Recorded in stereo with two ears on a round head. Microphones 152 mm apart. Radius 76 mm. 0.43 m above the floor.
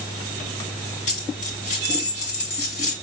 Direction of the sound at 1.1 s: 45° left (ahead or behind).